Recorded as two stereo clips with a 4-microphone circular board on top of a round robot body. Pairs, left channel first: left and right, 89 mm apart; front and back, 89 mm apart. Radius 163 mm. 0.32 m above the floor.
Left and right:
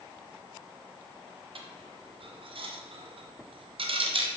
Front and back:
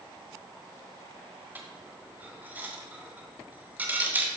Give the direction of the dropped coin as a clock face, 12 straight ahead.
4 o'clock.